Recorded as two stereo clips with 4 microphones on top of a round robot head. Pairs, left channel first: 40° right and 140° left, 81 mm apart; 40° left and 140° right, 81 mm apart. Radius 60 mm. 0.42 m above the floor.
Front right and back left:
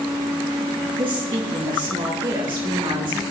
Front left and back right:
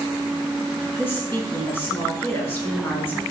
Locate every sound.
1.0 s a woman speaking: 105° left, 6 m